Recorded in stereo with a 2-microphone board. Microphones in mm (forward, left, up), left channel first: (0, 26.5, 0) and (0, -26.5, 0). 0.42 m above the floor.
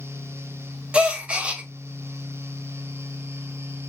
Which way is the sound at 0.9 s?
20° right (ahead or behind).